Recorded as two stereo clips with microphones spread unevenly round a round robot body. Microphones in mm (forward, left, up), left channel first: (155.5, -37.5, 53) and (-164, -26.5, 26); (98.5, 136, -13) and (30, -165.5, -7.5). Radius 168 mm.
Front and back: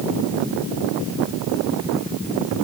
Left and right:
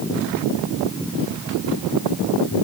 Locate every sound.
Only background noise.